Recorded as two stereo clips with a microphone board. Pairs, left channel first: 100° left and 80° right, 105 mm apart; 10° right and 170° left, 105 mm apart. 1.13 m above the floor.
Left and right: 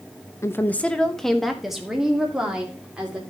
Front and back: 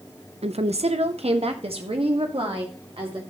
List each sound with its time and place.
0.4 s a woman speaking: 160° left, 0.7 m; by 3.2 s 160° right, 3 m